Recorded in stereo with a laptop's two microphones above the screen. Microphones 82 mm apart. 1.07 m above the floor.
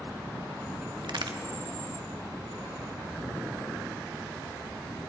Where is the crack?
65° right (ahead or behind), 0.8 m.